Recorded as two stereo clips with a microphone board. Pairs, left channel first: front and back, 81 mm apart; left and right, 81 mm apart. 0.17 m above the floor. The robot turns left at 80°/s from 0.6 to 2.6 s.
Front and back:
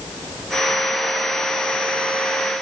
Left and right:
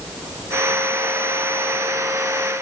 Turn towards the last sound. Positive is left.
No sound to turn to.